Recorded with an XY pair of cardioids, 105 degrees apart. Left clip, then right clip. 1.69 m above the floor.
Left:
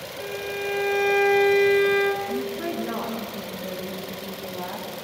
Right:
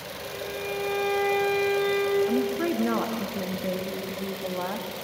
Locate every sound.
0.2 s a violin: 45° left, 4.5 m
2.3 s a woman speaking: 45° right, 2.5 m